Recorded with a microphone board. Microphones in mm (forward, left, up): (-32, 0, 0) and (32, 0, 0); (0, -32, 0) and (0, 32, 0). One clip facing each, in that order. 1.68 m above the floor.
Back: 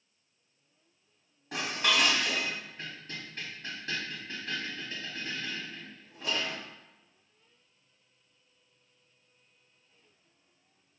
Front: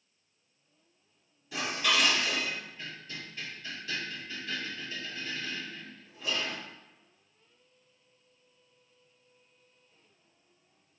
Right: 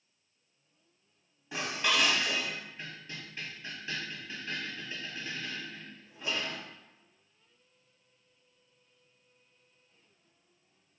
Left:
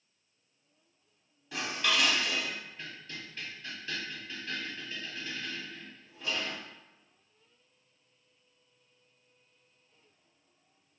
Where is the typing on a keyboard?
No typing on a keyboard in this recording.